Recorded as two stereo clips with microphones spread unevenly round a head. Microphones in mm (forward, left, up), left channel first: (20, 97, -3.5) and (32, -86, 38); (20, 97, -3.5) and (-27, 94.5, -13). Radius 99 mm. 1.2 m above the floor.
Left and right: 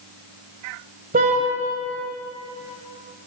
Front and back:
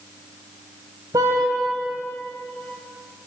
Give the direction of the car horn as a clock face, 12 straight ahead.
5 o'clock.